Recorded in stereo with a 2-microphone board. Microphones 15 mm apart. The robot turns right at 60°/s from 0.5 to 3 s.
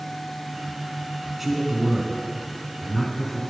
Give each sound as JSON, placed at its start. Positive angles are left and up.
{"t": 1.4, "sound": "a man speaking", "side_deg": -10, "distance_m": 1.3}